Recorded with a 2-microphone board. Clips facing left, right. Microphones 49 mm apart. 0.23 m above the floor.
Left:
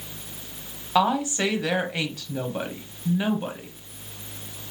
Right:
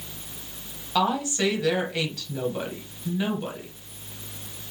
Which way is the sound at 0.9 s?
20° left (ahead or behind).